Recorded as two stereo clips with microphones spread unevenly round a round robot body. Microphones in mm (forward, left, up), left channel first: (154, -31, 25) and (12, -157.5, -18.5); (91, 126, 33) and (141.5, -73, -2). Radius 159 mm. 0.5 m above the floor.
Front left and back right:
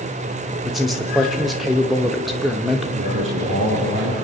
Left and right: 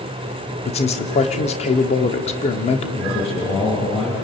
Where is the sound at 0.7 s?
155° left, 1.2 m.